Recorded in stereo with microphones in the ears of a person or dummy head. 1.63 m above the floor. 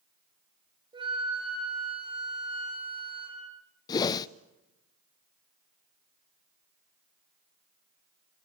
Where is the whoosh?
25° left (ahead or behind), 0.5 m.